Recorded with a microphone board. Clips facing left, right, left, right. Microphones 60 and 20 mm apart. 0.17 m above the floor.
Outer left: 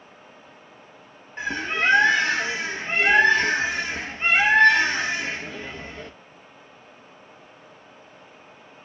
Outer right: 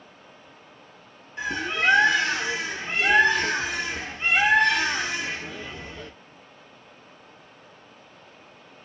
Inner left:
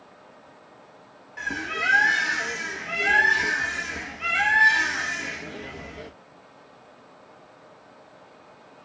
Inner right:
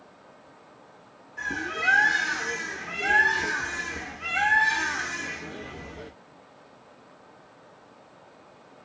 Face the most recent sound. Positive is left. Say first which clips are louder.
# outer left 1 dB, inner left 2 dB
turn(degrees=35)  # may be behind; listen again after turning